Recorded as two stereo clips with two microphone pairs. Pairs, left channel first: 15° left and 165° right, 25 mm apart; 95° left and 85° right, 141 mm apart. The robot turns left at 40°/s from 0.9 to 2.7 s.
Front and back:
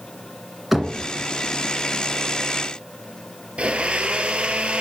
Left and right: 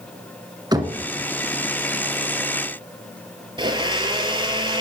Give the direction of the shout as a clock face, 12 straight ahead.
I don't hear a shout.